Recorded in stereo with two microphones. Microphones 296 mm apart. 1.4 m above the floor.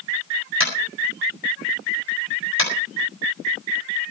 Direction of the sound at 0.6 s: 45° right (ahead or behind).